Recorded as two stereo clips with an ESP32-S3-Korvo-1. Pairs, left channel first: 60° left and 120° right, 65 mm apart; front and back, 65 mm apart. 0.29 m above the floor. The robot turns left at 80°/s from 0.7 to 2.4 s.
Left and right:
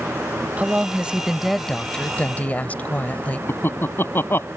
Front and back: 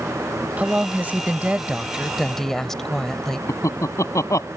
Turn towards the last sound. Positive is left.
turn(degrees=15)